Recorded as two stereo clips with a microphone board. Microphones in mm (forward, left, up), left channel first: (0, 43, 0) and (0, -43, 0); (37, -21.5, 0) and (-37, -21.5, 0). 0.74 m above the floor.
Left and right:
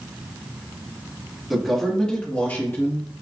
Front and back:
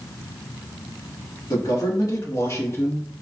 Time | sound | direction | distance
1.5 | a man speaking | 5° right | 1.3 m